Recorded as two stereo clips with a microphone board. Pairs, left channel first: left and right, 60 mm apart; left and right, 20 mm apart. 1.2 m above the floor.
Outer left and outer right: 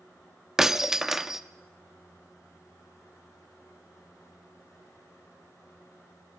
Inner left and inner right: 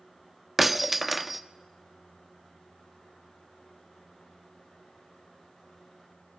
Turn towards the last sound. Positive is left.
turn(degrees=-10)  # may be behind; listen again after turning